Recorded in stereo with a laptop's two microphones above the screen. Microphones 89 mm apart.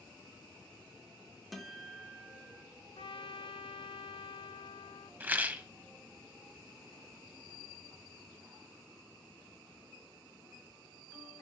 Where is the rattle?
20° right (ahead or behind), 0.9 m.